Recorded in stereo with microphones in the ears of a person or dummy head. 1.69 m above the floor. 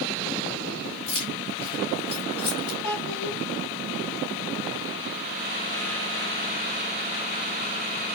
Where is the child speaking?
70° left (ahead or behind), 1.9 m.